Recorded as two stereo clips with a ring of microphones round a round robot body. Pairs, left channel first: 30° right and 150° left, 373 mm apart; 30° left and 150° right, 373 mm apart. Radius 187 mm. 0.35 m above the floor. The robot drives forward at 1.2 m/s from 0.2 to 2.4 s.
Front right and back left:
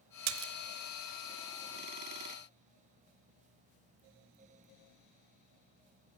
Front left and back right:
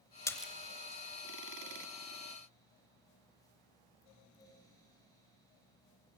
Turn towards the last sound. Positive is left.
turn(degrees=165)